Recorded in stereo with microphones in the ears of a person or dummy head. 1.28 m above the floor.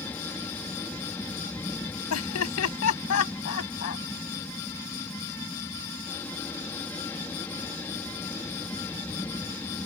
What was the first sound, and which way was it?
An aircraft, 10° left (ahead or behind).